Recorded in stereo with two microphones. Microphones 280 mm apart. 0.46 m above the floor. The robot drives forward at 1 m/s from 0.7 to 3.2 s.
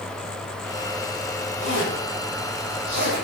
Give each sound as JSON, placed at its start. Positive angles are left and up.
{"t": 1.6, "sound": "a zipper", "side_deg": 80, "distance_m": 4.0}